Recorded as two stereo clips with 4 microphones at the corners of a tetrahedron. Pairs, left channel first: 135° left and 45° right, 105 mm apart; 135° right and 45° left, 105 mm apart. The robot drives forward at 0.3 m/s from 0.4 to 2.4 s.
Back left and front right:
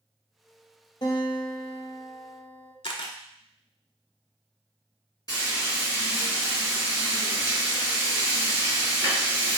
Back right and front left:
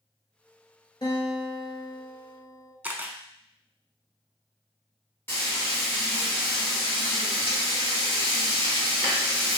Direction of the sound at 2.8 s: 120° left.